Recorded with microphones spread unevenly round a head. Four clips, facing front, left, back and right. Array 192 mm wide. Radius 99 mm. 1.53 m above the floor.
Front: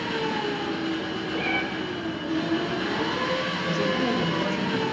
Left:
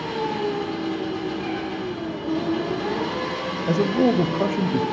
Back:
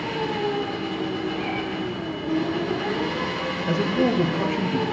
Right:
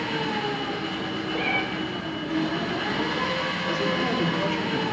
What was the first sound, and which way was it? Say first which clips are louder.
An engine running: left 3 dB, back 2 dB; 125° left.